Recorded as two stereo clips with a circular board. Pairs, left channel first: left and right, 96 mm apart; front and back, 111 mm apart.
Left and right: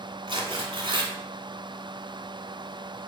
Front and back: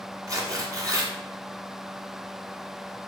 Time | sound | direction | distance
0.3 | tearing paper | 125° right | 1.4 m